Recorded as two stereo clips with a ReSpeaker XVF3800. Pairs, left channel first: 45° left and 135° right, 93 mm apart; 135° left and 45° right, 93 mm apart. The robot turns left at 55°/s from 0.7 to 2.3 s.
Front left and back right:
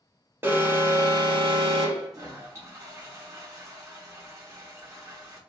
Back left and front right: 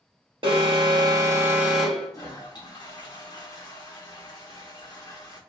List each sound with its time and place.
0.4 s an alarm: 70° right, 1.0 m; by 2.1 s 145° right, 1.0 m
2.1 s a toilet flushing: straight behind, 0.7 m; by 5.4 s 170° left, 0.7 m